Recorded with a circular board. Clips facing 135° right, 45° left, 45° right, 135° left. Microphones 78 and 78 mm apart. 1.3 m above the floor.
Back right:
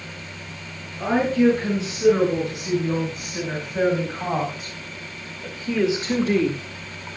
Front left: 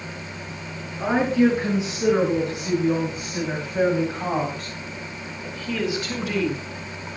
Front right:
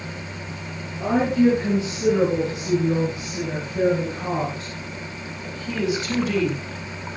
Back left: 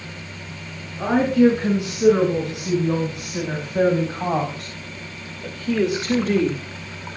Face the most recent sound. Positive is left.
turn(degrees=-175)